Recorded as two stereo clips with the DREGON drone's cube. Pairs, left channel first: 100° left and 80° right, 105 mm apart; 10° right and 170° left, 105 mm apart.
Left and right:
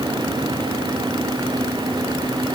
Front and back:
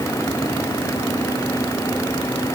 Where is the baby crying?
No baby crying in this recording.